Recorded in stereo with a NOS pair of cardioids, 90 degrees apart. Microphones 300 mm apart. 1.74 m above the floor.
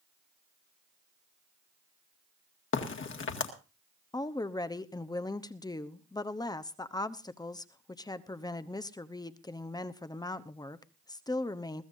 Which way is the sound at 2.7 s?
45° left.